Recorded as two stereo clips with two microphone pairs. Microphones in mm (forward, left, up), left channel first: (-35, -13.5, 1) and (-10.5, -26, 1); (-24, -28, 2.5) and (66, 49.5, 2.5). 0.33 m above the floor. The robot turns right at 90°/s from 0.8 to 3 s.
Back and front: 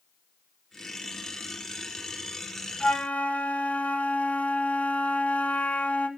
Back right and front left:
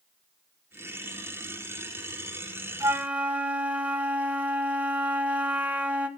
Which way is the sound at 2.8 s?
100° left.